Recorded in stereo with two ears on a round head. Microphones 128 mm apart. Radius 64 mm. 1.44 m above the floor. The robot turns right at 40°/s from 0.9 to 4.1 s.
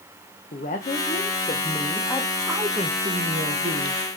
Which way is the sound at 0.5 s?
125° left.